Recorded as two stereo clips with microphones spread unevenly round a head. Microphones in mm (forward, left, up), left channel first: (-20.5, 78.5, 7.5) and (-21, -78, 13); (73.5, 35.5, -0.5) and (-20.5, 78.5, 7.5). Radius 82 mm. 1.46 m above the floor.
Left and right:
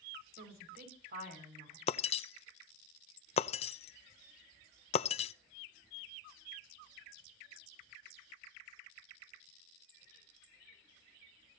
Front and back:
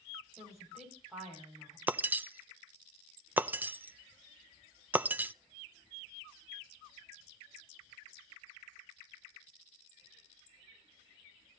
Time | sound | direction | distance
0.4 | a woman speaking | 120° right | 6 m
1.9 | breaking glass | 105° left | 0.6 m